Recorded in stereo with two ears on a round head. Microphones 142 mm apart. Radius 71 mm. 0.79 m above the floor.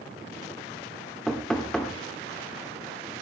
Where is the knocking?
5° left (ahead or behind), 2.5 m.